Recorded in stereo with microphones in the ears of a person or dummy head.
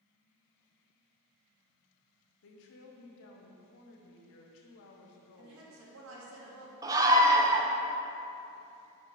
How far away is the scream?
About 1.1 m.